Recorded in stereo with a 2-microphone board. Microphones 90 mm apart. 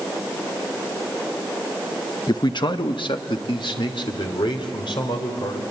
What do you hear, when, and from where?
2.3 s a man speaking: 55° left (ahead or behind), 0.8 m; by 5.6 s 80° left, 4 m